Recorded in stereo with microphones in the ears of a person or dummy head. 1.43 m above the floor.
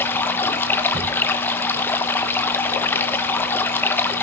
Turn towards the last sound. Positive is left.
turn(degrees=10)  # may be behind; listen again after turning